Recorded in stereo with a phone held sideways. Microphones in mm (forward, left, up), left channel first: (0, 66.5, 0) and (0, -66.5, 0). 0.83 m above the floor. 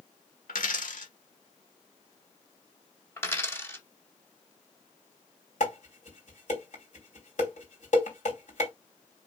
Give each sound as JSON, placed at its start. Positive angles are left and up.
{"t": 0.5, "sound": "a dropped coin", "side_deg": 75, "distance_m": 1.3}
{"t": 3.2, "sound": "a dropped coin", "side_deg": 20, "distance_m": 0.9}
{"t": 5.6, "sound": "dishes clattering", "side_deg": 65, "distance_m": 3.0}